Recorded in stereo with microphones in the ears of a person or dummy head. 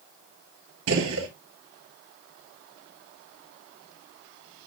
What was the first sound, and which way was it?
A gunshot, 75° right (ahead or behind).